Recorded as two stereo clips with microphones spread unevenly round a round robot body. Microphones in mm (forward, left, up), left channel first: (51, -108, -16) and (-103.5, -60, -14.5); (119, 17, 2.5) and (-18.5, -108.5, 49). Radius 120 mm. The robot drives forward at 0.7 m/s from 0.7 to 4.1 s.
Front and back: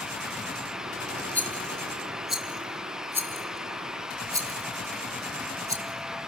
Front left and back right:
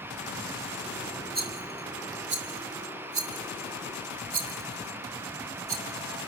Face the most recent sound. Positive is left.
turn(degrees=-130)